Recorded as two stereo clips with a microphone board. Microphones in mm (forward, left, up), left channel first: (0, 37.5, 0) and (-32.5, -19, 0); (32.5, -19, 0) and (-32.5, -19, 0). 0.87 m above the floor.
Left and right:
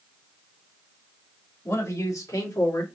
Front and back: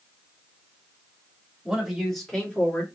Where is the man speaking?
100° left, 2.5 m; by 2.9 s 60° left, 1.9 m.